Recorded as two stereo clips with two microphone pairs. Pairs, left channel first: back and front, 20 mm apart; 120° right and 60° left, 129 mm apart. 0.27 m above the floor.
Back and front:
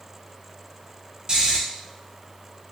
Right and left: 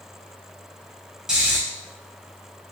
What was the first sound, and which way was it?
Snoring, 20° right.